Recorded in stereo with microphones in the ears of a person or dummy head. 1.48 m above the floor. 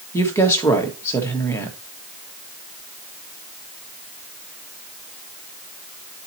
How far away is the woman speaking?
About 1.3 m.